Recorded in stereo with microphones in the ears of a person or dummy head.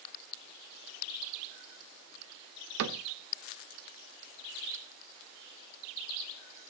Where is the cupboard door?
75° right (ahead or behind), 0.7 m.